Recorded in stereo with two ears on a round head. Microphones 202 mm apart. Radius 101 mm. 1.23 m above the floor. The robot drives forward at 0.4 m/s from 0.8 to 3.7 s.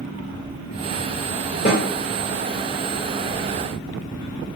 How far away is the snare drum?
About 1.4 m.